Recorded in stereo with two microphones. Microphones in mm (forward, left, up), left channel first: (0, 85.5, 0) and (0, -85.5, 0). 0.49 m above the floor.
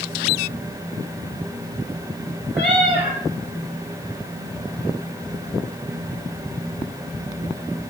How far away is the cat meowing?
About 3.5 m.